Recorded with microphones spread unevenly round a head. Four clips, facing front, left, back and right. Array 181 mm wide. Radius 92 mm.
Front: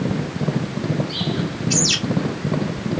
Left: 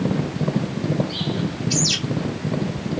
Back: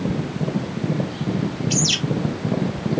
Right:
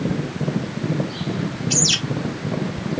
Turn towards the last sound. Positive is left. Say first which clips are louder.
# even, front 1 dB
turn(degrees=-55)